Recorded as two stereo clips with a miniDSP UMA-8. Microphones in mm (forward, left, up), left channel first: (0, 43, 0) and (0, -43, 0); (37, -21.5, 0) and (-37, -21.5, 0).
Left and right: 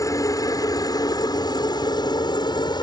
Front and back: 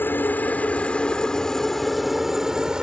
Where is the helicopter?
55° left; by 2.8 s 100° left.